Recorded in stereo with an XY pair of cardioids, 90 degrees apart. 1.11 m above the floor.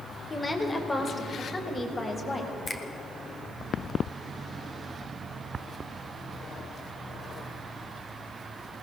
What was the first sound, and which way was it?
A woman speaking, 20° left.